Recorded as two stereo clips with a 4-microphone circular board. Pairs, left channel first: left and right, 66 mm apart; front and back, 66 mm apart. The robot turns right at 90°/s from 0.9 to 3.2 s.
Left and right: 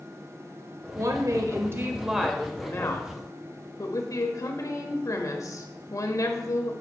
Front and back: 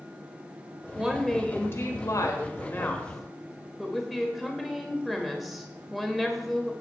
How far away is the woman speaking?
About 1.4 m.